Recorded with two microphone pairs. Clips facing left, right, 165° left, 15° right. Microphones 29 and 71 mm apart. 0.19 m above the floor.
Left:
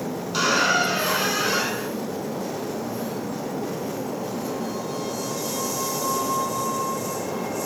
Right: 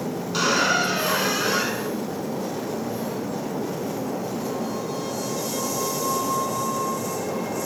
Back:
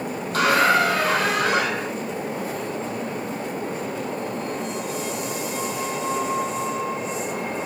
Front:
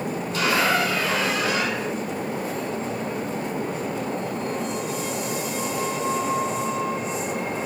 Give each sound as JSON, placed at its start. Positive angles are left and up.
{"t": 0.3, "sound": "a squeak", "azimuth_deg": 180, "distance_m": 1.0}